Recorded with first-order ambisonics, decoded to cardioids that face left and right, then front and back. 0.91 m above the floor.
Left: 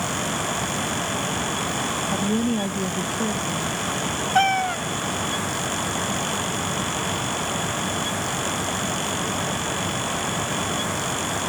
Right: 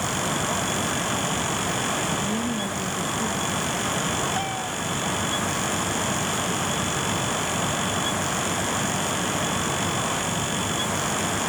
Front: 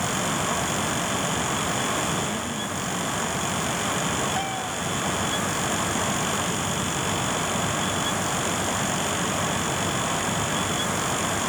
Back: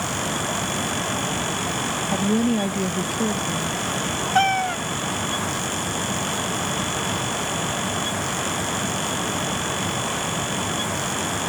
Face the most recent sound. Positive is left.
turn(degrees=135)